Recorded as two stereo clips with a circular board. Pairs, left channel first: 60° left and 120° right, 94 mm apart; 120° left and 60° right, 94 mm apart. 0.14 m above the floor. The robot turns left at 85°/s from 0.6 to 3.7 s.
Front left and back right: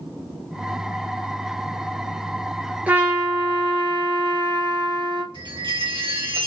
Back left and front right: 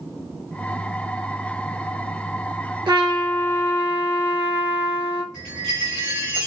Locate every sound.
2.9 s a trumpet: 50° right, 1.1 m; by 5.2 s 120° right, 1.1 m
5.3 s a chime: 140° right, 2.5 m